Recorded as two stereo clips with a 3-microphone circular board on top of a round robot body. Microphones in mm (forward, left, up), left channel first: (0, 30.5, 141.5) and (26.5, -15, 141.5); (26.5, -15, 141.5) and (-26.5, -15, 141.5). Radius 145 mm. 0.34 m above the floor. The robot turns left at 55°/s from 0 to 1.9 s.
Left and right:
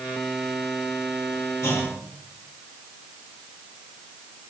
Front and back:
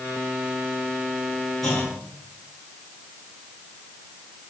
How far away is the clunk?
About 3.5 m.